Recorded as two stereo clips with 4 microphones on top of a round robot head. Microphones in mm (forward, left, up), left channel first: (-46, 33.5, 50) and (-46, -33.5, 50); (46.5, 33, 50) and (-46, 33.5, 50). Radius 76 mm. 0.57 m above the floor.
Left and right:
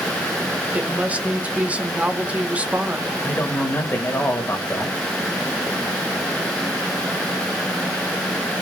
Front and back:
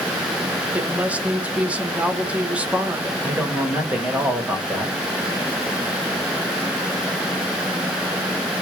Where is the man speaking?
110° left, 1.6 m.